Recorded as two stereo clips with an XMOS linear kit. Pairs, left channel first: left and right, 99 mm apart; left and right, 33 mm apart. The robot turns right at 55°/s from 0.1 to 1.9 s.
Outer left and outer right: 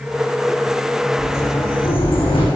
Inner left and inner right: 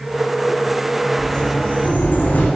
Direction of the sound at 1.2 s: 25° left.